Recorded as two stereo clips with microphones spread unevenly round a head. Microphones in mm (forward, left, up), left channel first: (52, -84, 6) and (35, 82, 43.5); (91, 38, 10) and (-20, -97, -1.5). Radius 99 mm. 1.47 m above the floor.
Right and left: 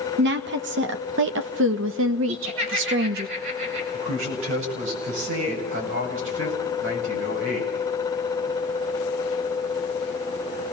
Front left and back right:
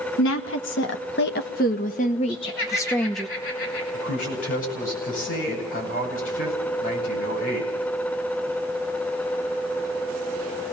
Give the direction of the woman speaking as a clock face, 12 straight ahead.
9 o'clock.